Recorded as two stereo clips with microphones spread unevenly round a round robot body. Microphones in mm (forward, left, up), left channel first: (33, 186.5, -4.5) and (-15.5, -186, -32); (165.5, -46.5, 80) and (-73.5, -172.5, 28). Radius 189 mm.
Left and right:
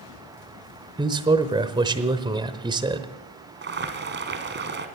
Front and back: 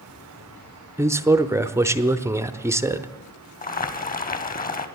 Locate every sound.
1.0 s a man speaking: 140° right, 0.8 m
3.6 s boiling: 35° right, 1.5 m